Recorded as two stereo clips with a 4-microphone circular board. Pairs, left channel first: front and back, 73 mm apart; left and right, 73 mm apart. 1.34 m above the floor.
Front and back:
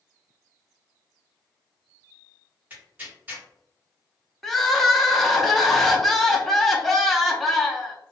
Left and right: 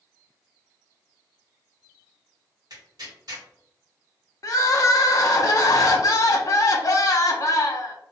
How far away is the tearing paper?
About 1.6 m.